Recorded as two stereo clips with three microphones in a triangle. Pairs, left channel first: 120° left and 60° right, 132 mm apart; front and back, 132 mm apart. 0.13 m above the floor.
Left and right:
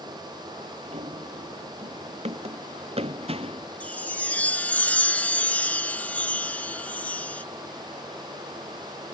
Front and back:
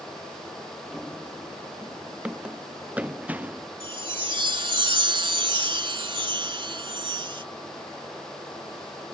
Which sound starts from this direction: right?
Running footsteps, at 0.9 s.